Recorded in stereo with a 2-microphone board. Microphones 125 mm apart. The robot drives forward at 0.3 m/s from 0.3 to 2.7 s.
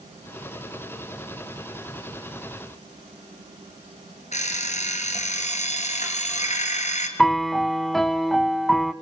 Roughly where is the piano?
Centre.